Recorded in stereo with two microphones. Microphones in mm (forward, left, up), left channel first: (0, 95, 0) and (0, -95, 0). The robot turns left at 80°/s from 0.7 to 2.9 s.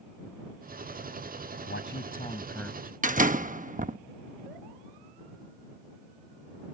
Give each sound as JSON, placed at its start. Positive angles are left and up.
{"t": 1.7, "sound": "a man speaking", "azimuth_deg": 85}
{"t": 3.0, "sound": "a door slam", "side_deg": -45}